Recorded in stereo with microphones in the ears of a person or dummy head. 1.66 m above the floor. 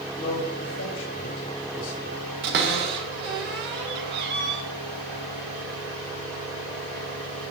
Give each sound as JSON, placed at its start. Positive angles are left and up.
{"t": 0.2, "sound": "a man speaking", "side_deg": 65, "distance_m": 3.0}
{"t": 2.4, "sound": "a cupboard door", "side_deg": -55, "distance_m": 1.2}